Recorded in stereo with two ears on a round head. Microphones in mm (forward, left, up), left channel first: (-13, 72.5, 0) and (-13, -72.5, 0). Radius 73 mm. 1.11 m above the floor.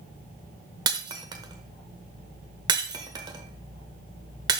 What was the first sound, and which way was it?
Breaking glass, 25° right (ahead or behind).